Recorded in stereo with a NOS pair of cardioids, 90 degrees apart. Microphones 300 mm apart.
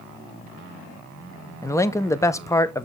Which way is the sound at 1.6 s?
10° left.